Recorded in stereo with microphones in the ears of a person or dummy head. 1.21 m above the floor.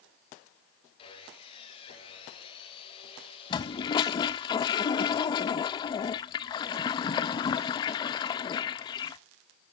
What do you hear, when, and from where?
1.0 s sawing: 30° left (ahead or behind), 3 m
3.5 s a toilet flushing: 25° left (ahead or behind), 0.6 m